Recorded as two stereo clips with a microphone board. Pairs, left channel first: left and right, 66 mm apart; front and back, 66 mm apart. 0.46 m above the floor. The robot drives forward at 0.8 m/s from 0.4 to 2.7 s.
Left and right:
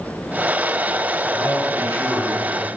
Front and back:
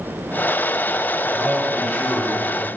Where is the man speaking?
95° left, 2.5 m; by 2.7 s 115° left, 3 m.